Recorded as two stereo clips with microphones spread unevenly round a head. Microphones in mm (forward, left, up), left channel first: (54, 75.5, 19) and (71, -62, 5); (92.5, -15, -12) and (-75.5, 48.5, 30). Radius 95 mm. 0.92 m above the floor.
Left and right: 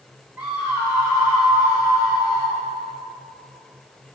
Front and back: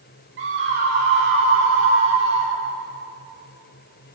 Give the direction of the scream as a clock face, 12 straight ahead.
5 o'clock.